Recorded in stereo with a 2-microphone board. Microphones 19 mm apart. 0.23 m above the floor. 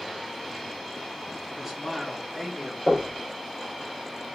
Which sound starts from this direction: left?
Knocking, at 2.9 s.